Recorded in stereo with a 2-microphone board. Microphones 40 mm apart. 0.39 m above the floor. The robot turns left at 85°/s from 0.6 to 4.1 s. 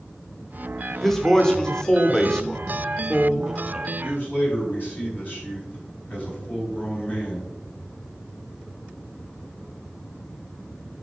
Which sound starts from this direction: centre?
A man speaking, at 1.0 s.